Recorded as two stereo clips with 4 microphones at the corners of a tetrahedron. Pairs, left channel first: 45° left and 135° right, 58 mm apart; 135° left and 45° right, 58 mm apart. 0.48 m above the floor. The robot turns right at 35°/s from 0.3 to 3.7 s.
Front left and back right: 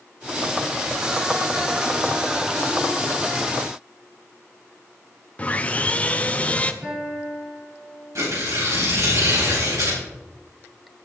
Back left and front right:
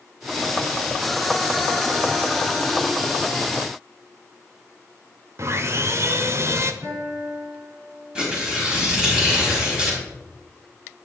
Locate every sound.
5.4 s sawing: 20° right, 0.7 m
6.8 s a guitar: 75° right, 6.5 m
8.2 s tearing paper: 120° right, 4 m